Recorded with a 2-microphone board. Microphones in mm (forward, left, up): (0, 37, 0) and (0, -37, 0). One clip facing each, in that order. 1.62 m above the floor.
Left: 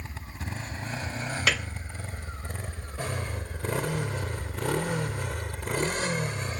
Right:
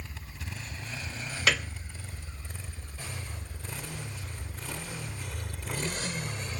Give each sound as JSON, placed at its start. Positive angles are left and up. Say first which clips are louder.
{"t": 0.0, "sound": "a motorcycle", "louder": "left 5 dB", "side_deg": 35}
{"t": 1.5, "sound": "a piano", "louder": "right 1 dB", "side_deg": 0}